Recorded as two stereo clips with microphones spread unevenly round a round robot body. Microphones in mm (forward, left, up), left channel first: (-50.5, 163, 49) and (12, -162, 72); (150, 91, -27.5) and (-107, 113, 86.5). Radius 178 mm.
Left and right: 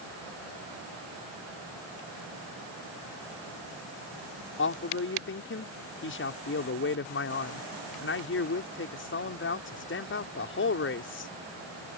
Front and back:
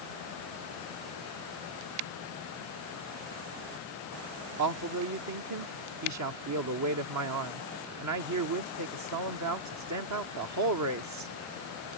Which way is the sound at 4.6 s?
150° left.